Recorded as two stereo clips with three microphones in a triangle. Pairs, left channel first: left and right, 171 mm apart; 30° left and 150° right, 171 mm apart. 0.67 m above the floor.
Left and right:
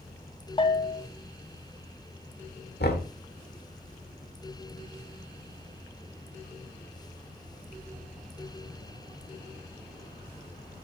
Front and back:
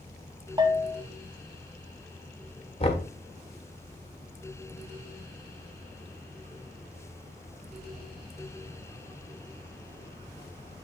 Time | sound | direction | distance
0.6 | a bell | 150° left | 1.0 m
2.8 | knocking | 80° left | 1.3 m